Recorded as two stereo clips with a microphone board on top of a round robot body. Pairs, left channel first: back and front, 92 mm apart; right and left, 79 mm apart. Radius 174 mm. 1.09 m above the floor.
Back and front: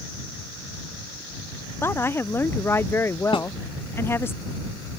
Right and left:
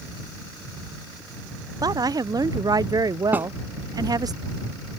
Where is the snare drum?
160° left.